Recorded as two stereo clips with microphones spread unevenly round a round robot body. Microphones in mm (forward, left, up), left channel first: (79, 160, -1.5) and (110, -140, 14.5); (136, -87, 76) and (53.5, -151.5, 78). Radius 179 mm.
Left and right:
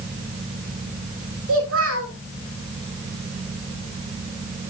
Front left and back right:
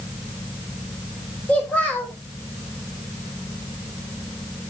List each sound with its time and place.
1.5 s a child speaking: 40° right, 1.9 m